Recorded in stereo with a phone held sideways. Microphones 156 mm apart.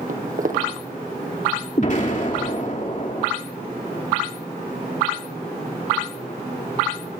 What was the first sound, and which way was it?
Footsteps, 60° right (ahead or behind).